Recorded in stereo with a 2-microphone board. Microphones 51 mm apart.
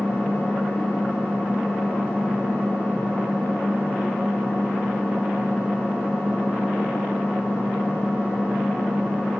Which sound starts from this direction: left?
An engine running, at 0.0 s.